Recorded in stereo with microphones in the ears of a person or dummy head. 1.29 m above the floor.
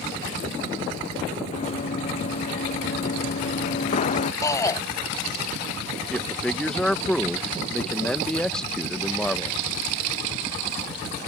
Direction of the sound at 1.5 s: 45° left (ahead or behind).